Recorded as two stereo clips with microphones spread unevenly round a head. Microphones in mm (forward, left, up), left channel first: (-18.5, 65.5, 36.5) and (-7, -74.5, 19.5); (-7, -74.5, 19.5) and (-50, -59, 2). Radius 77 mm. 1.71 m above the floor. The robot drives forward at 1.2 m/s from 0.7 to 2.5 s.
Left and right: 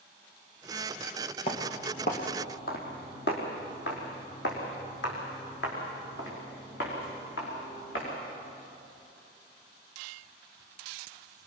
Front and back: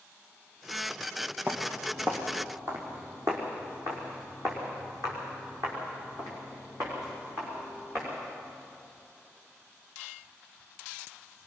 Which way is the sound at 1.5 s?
65° left.